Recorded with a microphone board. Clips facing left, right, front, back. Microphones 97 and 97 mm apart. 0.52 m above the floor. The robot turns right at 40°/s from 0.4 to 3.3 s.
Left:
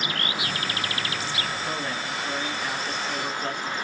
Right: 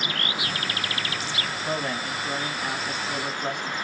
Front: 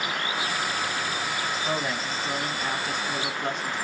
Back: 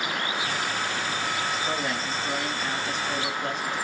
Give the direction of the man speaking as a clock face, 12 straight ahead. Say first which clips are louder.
Right 2 dB, even; 3 o'clock.